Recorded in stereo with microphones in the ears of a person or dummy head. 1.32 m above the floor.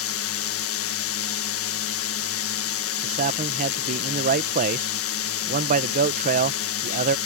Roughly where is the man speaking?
Right.